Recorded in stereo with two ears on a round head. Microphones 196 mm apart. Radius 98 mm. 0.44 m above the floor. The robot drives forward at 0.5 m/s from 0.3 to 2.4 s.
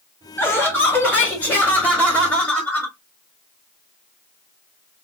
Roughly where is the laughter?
Centre.